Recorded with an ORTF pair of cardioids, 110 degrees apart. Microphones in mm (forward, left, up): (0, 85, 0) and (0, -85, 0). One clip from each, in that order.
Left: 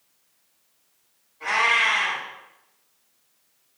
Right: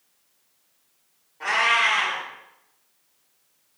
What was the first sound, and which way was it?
A cat meowing, 70° right.